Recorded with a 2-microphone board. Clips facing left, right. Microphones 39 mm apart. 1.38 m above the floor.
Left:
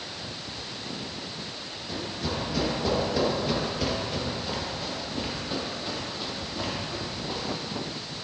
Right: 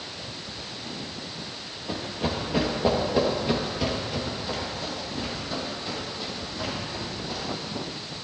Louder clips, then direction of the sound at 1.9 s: Right 3 dB; 45° right (ahead or behind).